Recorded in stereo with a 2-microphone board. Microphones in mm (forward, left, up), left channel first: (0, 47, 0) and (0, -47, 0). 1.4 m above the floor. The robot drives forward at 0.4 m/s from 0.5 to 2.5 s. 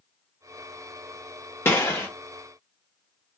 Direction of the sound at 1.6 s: 25° left (ahead or behind).